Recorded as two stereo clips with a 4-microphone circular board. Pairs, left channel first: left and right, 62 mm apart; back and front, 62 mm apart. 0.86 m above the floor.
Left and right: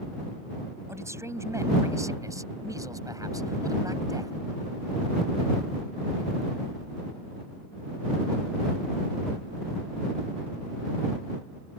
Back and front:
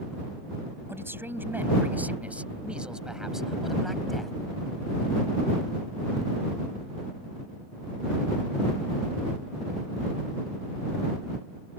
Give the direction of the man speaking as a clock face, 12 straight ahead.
2 o'clock.